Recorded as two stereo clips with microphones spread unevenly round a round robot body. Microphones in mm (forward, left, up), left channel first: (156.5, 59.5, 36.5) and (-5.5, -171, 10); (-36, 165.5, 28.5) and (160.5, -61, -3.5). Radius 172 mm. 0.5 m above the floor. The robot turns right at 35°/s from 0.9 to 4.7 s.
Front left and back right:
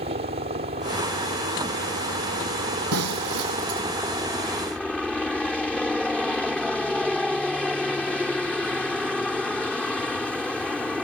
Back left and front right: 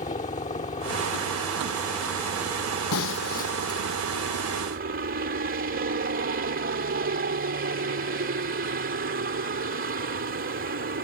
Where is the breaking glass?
Straight behind; by 3.8 s 145° right.